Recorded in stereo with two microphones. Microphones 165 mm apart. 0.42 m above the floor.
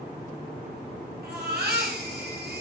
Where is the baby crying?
75° right (ahead or behind), 2.5 m.